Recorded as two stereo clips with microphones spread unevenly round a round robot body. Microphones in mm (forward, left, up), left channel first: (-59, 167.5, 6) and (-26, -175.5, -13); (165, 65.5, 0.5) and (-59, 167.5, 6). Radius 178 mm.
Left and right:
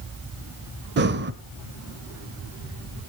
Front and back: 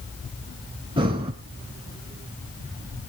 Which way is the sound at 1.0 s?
135° right.